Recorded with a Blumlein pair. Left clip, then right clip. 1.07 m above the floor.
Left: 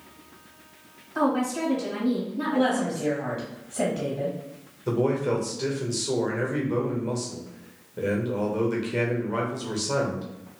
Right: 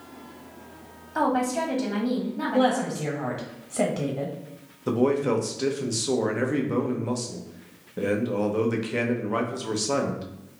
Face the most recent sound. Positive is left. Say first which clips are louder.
# right 2 dB
turn(degrees=-15)